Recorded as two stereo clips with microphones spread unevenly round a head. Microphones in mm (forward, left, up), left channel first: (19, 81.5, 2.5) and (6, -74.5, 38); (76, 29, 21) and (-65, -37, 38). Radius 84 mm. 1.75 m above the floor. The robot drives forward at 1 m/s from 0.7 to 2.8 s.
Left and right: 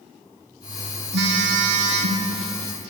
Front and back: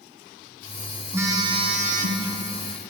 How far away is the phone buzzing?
About 1.3 m.